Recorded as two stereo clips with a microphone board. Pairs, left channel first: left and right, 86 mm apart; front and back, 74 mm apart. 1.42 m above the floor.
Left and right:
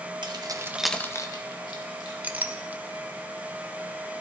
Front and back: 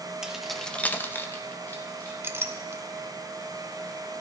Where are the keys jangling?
100° right, 1.1 m; by 2.1 s 65° left, 2 m.